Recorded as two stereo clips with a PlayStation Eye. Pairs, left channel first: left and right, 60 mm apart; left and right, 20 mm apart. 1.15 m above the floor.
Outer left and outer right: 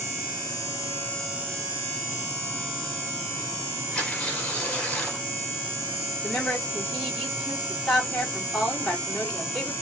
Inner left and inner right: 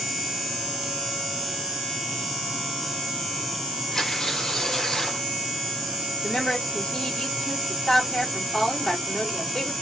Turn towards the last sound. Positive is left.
turn(degrees=10)  # may be behind; listen again after turning